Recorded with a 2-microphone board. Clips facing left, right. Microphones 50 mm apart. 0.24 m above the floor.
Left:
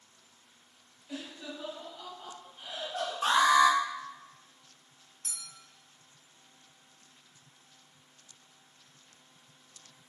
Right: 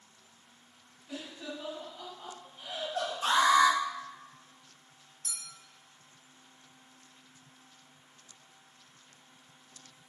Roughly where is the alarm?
Left.